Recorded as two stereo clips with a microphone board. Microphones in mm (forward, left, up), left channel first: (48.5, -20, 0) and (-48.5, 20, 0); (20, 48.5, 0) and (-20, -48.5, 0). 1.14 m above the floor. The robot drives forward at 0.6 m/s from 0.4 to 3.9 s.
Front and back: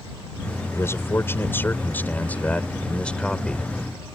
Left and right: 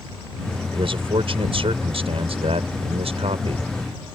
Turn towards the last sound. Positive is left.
turn(degrees=-105)